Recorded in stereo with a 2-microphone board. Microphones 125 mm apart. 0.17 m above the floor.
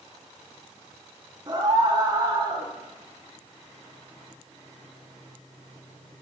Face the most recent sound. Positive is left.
turn(degrees=-35)  # may be behind; listen again after turning